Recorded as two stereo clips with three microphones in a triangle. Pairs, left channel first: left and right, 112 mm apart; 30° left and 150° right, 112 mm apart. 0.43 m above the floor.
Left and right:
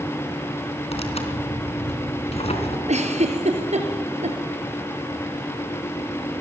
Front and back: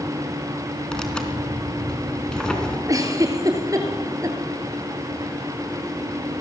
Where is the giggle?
90° right, 3.5 m.